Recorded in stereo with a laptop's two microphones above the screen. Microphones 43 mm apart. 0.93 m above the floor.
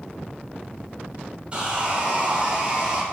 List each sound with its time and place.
1.5 s sawing: 25° right (ahead or behind), 0.8 m